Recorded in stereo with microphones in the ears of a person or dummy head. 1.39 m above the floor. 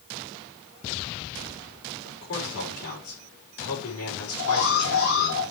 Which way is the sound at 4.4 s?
80° left.